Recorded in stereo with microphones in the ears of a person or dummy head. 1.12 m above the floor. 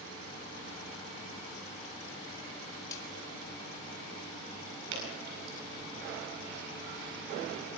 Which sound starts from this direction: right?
Dripping, at 4.9 s.